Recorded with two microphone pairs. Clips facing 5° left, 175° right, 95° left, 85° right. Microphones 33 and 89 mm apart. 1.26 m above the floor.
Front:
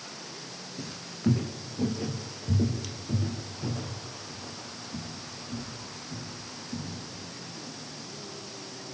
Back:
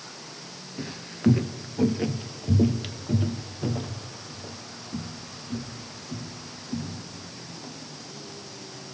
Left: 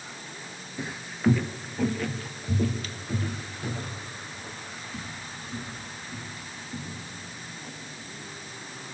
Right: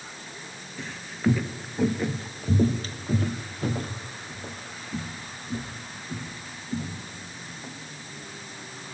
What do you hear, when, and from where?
0.8 s footsteps: 150° left, 1.4 m; by 7.7 s 115° right, 6 m